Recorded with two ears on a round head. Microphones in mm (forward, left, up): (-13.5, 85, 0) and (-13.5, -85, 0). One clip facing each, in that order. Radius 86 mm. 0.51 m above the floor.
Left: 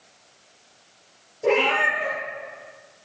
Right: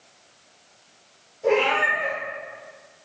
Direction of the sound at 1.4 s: 55° left (ahead or behind).